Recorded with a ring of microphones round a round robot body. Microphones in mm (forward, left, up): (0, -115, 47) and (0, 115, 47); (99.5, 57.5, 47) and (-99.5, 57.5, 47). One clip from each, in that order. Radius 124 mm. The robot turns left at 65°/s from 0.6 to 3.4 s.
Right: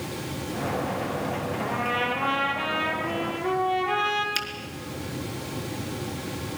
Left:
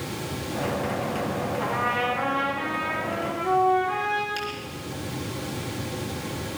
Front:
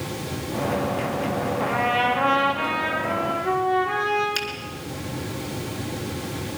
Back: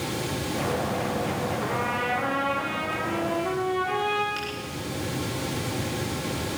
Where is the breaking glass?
No breaking glass in this recording.